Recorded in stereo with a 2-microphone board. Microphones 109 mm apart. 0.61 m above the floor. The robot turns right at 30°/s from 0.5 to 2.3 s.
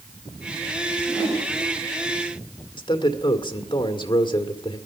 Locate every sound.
0.9 s a whoosh: 30° left (ahead or behind), 7 m; by 1.5 s 10° left (ahead or behind), 7 m
2.8 s a man speaking: 45° left (ahead or behind), 1.9 m